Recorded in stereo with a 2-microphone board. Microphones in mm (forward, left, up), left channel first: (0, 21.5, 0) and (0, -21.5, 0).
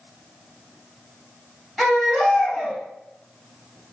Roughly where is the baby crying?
Centre.